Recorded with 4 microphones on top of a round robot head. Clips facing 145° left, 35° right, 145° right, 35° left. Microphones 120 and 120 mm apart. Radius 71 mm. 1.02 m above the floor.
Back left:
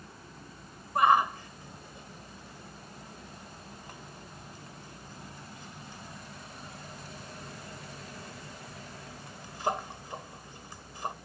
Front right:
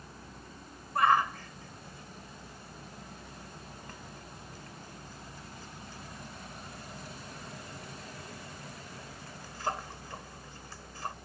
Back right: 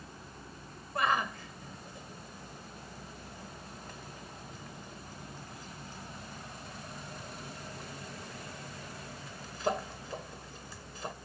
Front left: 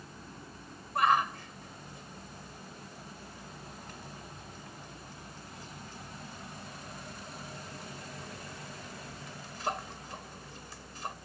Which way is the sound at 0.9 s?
140° right.